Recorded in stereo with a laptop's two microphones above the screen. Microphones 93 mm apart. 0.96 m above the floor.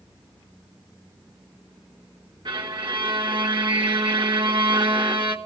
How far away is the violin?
About 1.3 m.